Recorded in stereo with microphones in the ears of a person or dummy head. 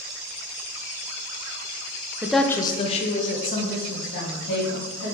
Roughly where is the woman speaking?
Centre.